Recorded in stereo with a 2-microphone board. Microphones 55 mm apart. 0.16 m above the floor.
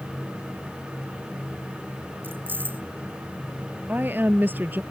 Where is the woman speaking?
35° right (ahead or behind).